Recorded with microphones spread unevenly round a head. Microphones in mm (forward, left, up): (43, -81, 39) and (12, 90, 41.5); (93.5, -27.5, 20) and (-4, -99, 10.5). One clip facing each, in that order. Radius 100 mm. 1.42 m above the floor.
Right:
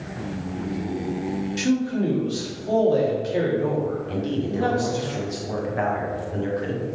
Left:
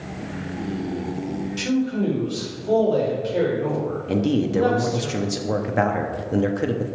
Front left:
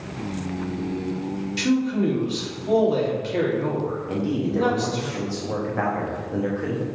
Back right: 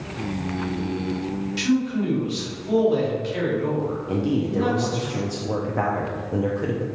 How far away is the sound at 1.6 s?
About 3 m.